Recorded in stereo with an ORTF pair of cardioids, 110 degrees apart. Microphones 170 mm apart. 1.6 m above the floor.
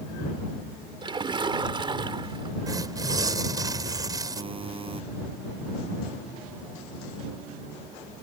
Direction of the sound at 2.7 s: 20° right.